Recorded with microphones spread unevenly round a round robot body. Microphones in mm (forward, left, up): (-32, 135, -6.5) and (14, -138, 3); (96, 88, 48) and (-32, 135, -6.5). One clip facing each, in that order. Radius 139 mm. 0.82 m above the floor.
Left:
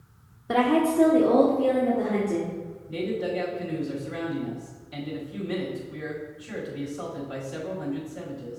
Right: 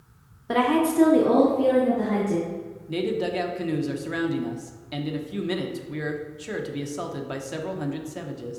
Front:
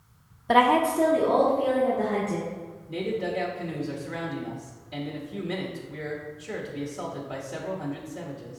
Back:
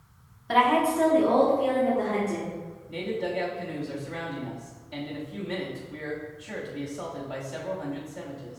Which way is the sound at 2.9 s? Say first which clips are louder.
Right 3 dB, front 1 dB; 90° right.